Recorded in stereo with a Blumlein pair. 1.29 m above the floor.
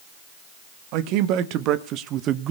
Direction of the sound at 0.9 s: 40° right.